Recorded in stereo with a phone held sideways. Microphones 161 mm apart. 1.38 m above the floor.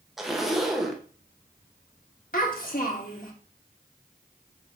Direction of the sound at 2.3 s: 55° left (ahead or behind).